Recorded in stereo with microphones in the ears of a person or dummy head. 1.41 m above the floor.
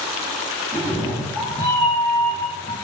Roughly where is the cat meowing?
Left.